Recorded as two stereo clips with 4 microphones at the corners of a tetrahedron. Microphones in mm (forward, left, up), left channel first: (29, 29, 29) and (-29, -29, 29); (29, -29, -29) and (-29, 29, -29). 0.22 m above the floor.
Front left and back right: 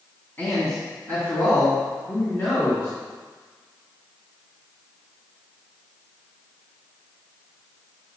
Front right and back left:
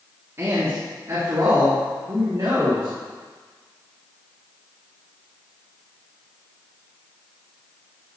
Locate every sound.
0.4 s a man speaking: 95° left, 2 m; by 2.9 s 105° left, 3.5 m